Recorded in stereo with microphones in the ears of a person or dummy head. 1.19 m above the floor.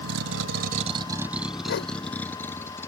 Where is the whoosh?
70° left (ahead or behind).